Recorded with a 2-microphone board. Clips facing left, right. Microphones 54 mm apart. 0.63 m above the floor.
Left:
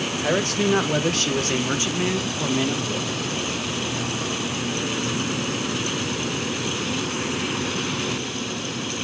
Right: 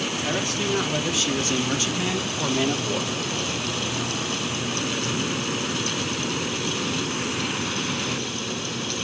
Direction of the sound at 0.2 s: 75° left (ahead or behind).